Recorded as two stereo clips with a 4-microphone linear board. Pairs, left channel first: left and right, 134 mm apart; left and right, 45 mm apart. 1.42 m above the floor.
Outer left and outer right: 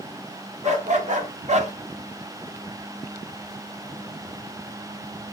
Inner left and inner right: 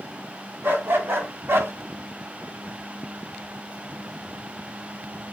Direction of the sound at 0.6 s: 55° right (ahead or behind).